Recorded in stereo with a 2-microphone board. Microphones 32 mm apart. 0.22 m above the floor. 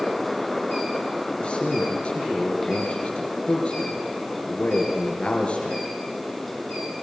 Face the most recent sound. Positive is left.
turn(degrees=45)  # may be behind; listen again after turning